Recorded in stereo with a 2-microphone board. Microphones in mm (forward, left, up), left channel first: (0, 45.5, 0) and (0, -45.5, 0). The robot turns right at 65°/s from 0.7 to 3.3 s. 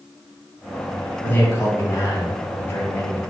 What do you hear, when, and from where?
1.2 s a man speaking: 35° left, 1.4 m; by 3.2 s 160° left, 1.4 m